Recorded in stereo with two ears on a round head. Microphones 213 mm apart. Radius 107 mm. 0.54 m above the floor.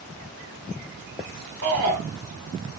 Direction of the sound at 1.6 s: 75° right (ahead or behind).